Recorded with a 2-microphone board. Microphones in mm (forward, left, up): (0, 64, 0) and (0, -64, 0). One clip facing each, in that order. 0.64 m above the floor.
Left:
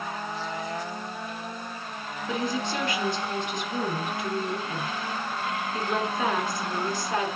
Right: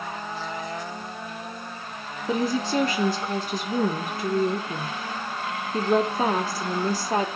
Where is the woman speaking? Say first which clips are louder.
Right 5 dB; 35° right (ahead or behind), 1.6 m.